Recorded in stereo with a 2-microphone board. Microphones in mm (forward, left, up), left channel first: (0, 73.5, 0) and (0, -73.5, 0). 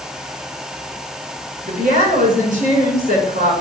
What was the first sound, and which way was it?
A woman speaking, 70° right (ahead or behind).